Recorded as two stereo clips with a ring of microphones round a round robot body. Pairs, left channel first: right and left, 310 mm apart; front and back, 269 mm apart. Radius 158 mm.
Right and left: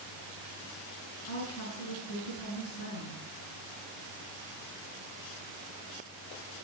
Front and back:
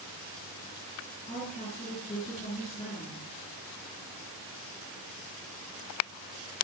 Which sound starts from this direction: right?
A woman speaking, at 1.3 s.